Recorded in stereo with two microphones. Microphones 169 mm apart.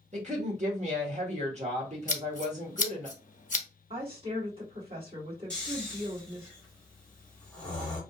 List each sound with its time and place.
0.1 s a woman speaking: 45° right (ahead or behind), 1.0 m
2.1 s scissors: 50° left (ahead or behind), 0.6 m
3.9 s a woman speaking: 35° right (ahead or behind), 1.8 m
5.5 s snoring: 5° left (ahead or behind), 1.3 m